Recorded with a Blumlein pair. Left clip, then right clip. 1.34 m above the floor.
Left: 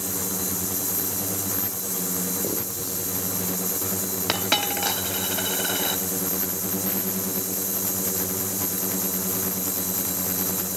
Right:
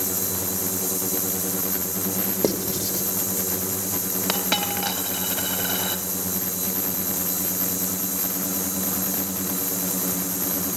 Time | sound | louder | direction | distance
2.4 | writing | right 5 dB | 30° right | 3.5 m
4.3 | a dropped coin | left 1 dB | 5° left | 3 m